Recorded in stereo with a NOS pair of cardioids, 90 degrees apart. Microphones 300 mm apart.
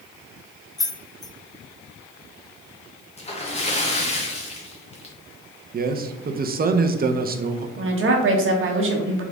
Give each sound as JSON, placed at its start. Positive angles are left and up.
{"t": 0.8, "sound": "keys jangling", "azimuth_deg": 15, "distance_m": 0.6}
{"t": 3.2, "sound": "a splash", "azimuth_deg": 25, "distance_m": 1.2}
{"t": 5.7, "sound": "a man speaking", "azimuth_deg": -35, "distance_m": 0.7}
{"t": 7.8, "sound": "a woman speaking", "azimuth_deg": -45, "distance_m": 1.2}